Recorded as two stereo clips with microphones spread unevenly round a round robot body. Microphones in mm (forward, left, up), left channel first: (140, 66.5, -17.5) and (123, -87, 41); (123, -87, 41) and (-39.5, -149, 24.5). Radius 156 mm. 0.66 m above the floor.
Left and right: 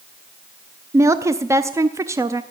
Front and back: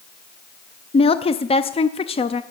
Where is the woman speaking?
Straight ahead, 0.5 m.